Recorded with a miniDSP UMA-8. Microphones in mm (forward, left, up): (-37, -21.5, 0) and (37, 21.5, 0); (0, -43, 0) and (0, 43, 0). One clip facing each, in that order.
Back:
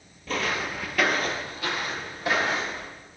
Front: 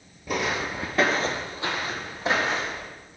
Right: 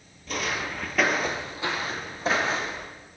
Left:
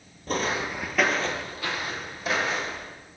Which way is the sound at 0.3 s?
100° left.